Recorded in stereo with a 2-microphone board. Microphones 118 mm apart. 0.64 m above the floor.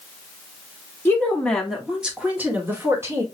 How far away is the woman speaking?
About 1.1 m.